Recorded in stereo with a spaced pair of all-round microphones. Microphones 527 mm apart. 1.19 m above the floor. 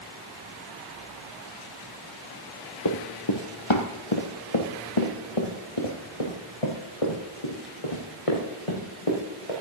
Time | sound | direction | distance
2.9 | running footsteps | 45° left (ahead or behind) | 1.6 m